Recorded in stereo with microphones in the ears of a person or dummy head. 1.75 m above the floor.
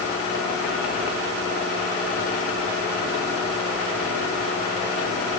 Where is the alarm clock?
No alarm clock in this recording.